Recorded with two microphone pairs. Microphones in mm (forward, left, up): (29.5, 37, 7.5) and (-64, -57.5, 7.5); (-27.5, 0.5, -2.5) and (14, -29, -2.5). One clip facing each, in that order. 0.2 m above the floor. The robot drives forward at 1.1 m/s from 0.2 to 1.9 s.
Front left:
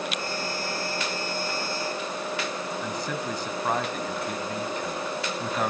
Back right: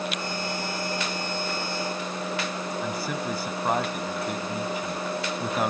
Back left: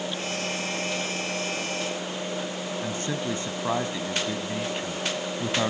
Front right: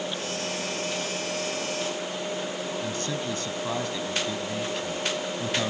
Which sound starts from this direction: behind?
A man speaking, at 2.8 s.